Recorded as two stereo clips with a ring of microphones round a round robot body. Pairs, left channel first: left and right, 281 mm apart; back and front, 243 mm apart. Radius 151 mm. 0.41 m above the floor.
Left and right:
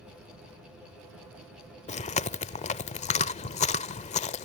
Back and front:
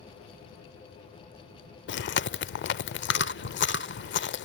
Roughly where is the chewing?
Behind left.